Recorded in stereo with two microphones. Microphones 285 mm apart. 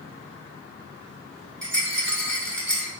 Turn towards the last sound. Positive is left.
turn(degrees=-40)  # may be behind; listen again after turning